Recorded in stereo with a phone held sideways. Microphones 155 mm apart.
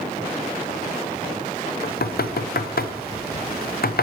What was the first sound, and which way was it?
Knocking, 75° left (ahead or behind).